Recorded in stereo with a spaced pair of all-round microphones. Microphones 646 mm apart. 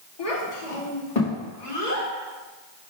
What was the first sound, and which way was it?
A child speaking, 60° left (ahead or behind).